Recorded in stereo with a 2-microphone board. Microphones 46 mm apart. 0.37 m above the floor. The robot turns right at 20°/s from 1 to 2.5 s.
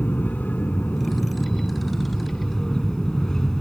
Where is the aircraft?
135° left; by 3.6 s 165° left.